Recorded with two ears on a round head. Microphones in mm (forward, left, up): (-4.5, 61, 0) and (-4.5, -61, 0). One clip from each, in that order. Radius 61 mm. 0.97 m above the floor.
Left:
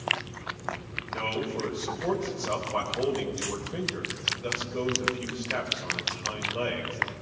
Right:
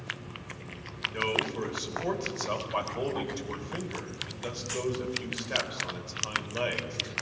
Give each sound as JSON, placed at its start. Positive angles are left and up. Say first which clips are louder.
{"t": 1.1, "sound": "a man speaking", "louder": "right 3 dB", "side_deg": -70, "distance_m": 5.0}